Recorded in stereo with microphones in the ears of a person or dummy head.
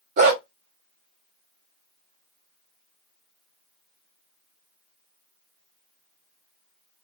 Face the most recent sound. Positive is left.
turn(degrees=-35)  # may be behind; listen again after turning